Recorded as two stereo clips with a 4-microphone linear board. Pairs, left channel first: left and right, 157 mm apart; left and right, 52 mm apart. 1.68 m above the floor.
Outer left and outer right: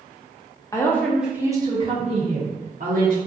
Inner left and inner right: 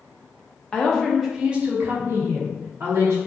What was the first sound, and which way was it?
A woman speaking, 20° left (ahead or behind).